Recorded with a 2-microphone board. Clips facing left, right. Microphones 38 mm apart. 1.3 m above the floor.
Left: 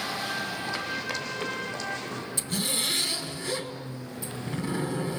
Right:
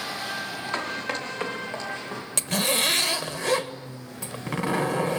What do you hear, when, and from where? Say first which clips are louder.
0.7 s running footsteps: right 2 dB; 45° right (ahead or behind), 3 m; by 2.2 s 20° right (ahead or behind), 4 m
2.4 s a zipper: right 7 dB; 70° right (ahead or behind), 1.6 m